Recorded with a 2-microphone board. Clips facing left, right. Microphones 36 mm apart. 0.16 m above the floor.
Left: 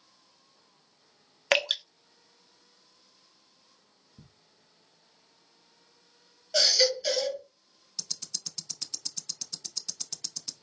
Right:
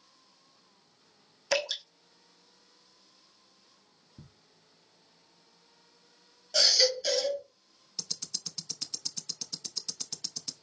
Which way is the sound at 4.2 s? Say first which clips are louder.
Right 2 dB; 5° right (ahead or behind).